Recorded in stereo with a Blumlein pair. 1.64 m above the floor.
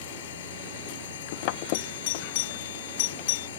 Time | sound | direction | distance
0.0 | a machine running | 60° left | ?
1.7 | a doorbell | 50° left | ?